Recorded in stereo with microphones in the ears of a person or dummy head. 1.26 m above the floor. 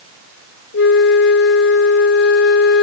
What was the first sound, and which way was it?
A flute, 60° left (ahead or behind).